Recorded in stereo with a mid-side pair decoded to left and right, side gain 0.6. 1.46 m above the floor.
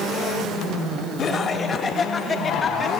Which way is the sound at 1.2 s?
40° left.